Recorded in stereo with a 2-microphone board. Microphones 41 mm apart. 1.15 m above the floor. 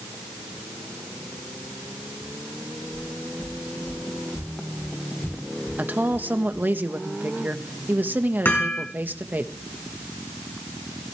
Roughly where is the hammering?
Left.